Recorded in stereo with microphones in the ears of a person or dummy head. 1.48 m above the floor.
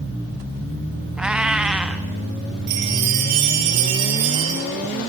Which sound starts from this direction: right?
A chime, at 2.7 s.